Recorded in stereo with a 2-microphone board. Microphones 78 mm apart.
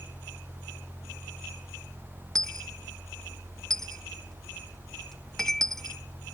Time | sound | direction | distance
2.4 | a dropped coin | 5° left (ahead or behind) | ?